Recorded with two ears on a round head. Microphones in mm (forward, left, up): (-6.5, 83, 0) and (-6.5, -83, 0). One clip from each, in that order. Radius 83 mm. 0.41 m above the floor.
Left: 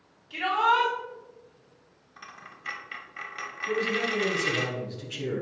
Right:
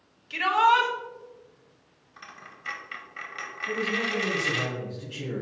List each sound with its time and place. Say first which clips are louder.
0.3 s a shout: right 3 dB; 50° right (ahead or behind), 2 m
2.2 s a dropped coin: even; centre (ahead or behind), 0.7 m
3.7 s a man speaking: even; 50° left (ahead or behind), 2.5 m